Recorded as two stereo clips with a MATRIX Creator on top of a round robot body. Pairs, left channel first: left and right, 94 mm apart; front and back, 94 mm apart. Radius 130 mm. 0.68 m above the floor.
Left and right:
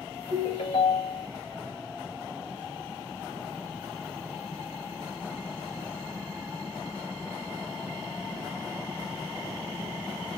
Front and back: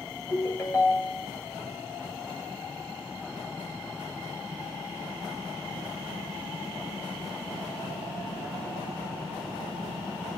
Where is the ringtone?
70° left, 2 m.